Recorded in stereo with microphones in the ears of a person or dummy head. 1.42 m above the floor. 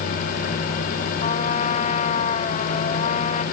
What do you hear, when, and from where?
1.2 s a trumpet: 35° left (ahead or behind)